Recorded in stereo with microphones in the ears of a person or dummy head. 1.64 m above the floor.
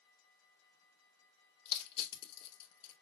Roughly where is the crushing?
Left.